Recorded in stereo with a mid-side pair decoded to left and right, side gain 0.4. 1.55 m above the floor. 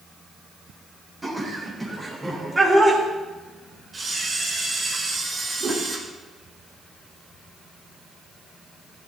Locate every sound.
1.2 s laughter: 10° right, 8 m; by 3.0 s 20° right, 6.5 m
3.9 s a camera shutter: 30° right, 7 m
5.6 s a whoosh: 45° right, 5 m